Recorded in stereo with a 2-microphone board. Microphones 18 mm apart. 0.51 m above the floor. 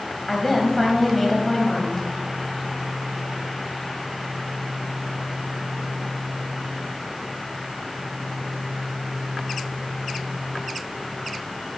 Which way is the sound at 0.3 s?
15° left (ahead or behind).